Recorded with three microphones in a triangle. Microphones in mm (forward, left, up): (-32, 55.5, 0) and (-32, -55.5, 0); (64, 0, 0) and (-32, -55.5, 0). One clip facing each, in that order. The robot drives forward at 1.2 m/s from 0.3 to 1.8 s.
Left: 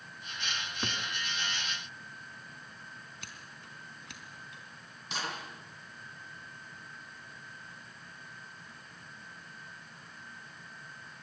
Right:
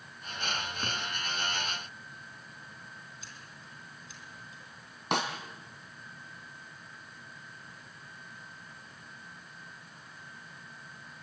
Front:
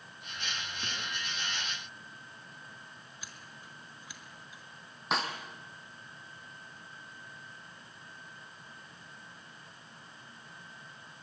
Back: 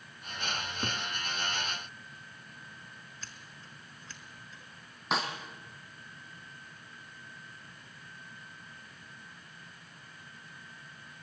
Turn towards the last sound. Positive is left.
turn(degrees=-60)